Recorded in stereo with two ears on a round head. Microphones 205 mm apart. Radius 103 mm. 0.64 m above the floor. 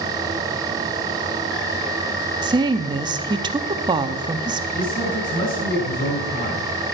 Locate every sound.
2.4 s a woman speaking: 20° right (ahead or behind), 0.6 m
4.8 s a man speaking: 35° left (ahead or behind), 6 m